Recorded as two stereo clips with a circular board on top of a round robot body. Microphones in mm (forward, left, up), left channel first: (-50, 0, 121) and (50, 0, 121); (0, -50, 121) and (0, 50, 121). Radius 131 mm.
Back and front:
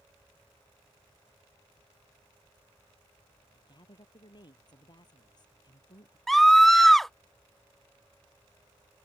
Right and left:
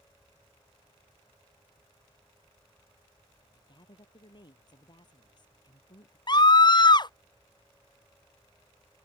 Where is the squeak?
No squeak in this recording.